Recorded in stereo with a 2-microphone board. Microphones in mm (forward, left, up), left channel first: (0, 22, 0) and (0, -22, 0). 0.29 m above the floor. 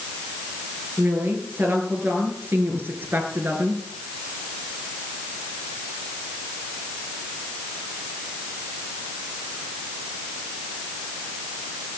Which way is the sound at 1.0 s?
50° right (ahead or behind).